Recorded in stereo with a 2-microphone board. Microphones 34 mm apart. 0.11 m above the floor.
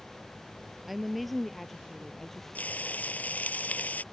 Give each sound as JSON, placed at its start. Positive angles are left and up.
{"t": 0.9, "sound": "a woman speaking", "side_deg": -5}
{"t": 2.5, "sound": "frying", "side_deg": 55}